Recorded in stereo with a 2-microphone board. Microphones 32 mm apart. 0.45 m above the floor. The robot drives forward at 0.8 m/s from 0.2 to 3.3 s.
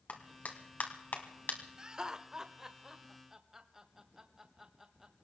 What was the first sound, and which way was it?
A clap, 55° left (ahead or behind).